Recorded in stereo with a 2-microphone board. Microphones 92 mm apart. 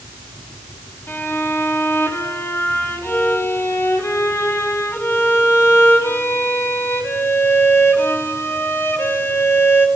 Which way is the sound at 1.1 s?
25° left (ahead or behind).